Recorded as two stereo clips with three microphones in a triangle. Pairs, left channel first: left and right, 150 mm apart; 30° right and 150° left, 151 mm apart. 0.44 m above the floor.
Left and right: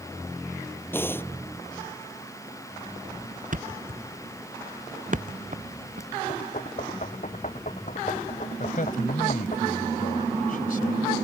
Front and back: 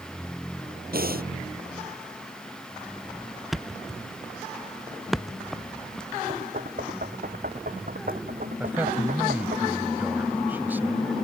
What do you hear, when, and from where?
0.9 s breathing: 165° left
3.5 s a thud: 120° right
6.3 s knocking: 130° left
8.6 s a man speaking: 70° left